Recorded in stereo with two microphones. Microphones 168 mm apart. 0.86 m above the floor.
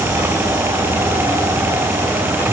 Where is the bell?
I don't hear a bell.